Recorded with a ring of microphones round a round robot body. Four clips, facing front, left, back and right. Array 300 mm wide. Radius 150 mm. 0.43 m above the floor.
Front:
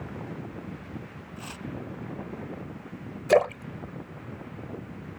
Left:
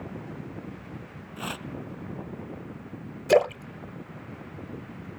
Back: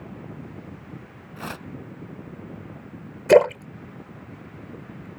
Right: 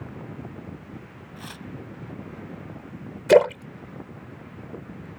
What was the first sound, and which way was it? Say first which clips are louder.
Tearing paper: left 6 dB, back 6 dB; 150° left.